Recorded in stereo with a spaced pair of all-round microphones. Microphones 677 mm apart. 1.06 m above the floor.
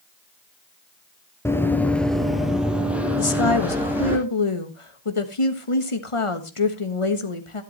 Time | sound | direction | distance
1.4 | running footsteps | 5° left (ahead or behind) | 1.1 m
3.2 | a woman speaking | 50° left (ahead or behind) | 1.3 m